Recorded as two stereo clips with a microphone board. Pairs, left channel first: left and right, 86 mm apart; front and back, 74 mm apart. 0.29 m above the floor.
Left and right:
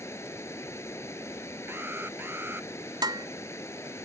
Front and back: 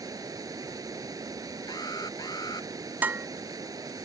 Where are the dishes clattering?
115° right.